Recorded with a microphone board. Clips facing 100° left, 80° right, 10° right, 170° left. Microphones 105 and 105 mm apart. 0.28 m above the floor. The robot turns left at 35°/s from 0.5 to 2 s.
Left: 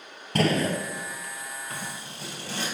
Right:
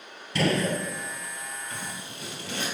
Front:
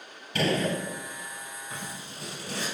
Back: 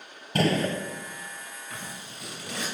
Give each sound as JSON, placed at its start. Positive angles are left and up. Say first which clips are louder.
{"t": 0.3, "sound": "a gunshot", "louder": "left 1 dB, back 2 dB", "azimuth_deg": 130, "distance_m": 0.6}
{"t": 1.7, "sound": "scissors", "louder": "left 1 dB, even", "azimuth_deg": 55, "distance_m": 1.9}